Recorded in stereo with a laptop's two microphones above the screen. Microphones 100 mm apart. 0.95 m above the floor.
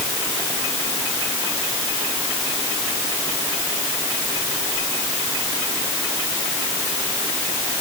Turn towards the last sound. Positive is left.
No sound to turn to.